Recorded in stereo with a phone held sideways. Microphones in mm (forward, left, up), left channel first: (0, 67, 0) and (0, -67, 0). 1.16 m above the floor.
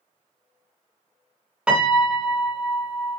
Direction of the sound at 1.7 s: 5° right (ahead or behind).